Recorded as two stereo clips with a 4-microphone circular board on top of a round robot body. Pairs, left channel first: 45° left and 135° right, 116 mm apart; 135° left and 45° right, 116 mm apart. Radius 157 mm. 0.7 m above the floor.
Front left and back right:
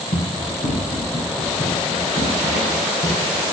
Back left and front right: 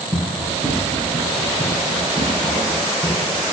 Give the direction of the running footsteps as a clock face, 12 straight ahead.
9 o'clock.